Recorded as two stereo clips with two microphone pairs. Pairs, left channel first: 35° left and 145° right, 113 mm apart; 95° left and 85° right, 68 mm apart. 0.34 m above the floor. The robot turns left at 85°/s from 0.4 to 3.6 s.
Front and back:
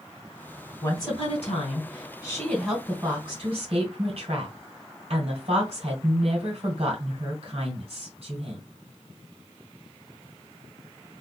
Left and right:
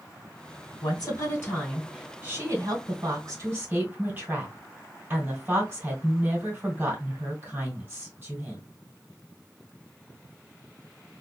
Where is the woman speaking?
95° left, 2.5 m; by 8.6 s 140° right, 2.5 m.